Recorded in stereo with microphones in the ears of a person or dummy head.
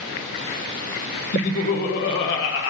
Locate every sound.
1.3 s laughter: 40° left (ahead or behind), 0.8 m; by 2.7 s 65° left (ahead or behind), 1.5 m